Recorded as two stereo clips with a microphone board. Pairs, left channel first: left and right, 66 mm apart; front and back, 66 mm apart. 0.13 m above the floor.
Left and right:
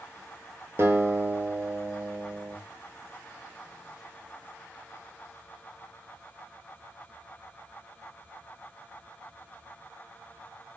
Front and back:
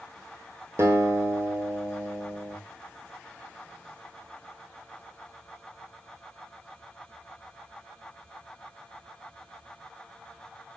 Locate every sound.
0.8 s a guitar: 135° right, 1.0 m